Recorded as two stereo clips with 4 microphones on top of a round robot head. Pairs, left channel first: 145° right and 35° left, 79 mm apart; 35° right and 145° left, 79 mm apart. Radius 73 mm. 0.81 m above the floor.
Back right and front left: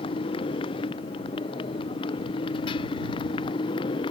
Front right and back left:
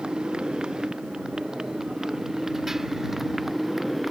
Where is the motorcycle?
135° right; by 4.1 s 125° right.